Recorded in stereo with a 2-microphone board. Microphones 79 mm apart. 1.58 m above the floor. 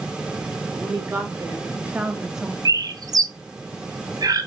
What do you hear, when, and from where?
0.7 s a woman speaking: 35° right (ahead or behind), 2.5 m; by 2.5 s centre (ahead or behind), 1.0 m
2.6 s a bird: 55° right (ahead or behind), 0.6 m